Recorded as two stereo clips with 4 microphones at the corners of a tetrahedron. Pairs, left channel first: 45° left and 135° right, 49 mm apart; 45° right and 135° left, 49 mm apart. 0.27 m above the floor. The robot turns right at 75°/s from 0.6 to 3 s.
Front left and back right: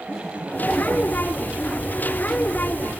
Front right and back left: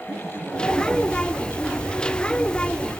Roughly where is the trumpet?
I don't hear a trumpet.